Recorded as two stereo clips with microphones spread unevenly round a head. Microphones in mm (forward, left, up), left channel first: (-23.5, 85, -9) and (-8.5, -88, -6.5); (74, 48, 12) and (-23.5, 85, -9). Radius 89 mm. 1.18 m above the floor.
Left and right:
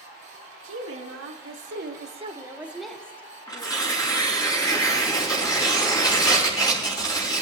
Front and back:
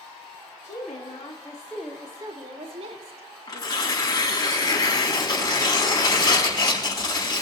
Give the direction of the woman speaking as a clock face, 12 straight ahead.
2 o'clock.